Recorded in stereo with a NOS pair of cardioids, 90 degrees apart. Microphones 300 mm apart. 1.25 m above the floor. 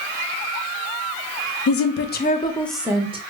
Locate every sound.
1.7 s a woman speaking: 55° left, 0.7 m; by 3.2 s 20° right, 0.7 m